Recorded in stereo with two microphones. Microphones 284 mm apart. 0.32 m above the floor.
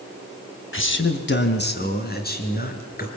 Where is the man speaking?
45° left (ahead or behind), 1.7 m; by 3.1 s 30° left (ahead or behind), 4.5 m.